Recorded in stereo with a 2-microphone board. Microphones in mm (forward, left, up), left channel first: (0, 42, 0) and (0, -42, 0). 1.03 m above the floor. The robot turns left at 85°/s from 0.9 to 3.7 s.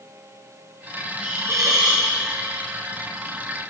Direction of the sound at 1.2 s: 5° right.